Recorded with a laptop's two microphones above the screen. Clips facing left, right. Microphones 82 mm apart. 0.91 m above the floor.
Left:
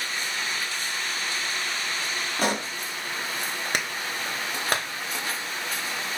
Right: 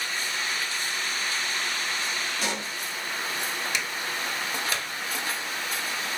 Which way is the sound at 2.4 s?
50° left (ahead or behind).